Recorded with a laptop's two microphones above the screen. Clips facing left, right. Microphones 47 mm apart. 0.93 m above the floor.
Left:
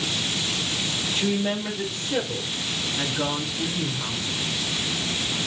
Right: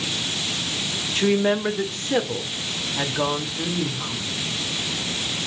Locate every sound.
1.1 s a woman speaking: 75° right (ahead or behind), 1.6 m